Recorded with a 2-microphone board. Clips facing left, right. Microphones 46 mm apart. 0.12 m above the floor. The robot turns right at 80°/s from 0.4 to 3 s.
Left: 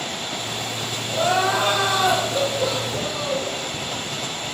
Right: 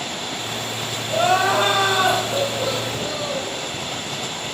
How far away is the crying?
About 3.5 m.